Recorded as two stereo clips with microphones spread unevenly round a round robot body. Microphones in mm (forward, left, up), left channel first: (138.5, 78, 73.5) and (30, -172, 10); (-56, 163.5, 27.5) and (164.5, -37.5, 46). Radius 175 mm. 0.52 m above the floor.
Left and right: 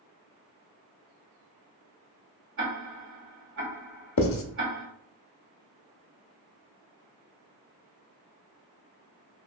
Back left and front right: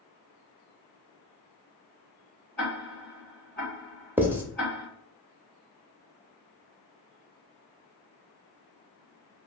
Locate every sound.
2.6 s ticking: 140° right, 1.2 m
4.2 s writing: 40° left, 0.7 m